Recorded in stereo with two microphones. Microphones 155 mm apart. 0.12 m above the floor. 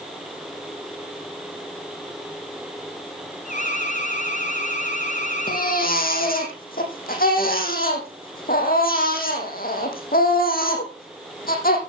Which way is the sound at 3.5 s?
55° left (ahead or behind).